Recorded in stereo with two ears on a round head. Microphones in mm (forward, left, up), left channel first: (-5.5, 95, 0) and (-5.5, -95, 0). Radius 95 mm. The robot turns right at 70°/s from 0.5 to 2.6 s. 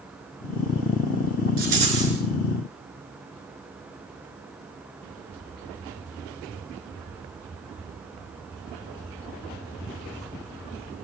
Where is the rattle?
50° right, 5 m; by 2.1 s 10° right, 5 m.